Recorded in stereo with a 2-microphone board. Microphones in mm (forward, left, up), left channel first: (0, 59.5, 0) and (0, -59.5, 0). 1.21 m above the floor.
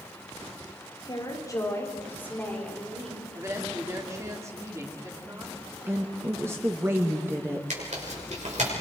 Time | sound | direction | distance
1.1 | a woman speaking | 35° left (ahead or behind) | 4.5 m
3.4 | a woman speaking | 25° right (ahead or behind) | 3 m
5.9 | a woman speaking | 20° right (ahead or behind) | 1.6 m
7.7 | tearing paper | 80° right | 6 m